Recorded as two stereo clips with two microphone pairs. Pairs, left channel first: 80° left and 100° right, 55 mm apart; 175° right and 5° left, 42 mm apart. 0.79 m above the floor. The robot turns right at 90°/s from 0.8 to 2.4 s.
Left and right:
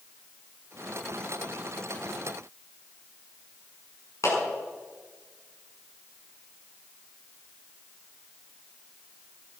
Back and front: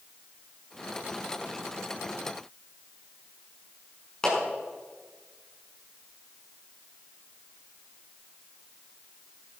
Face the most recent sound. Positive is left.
turn(degrees=110)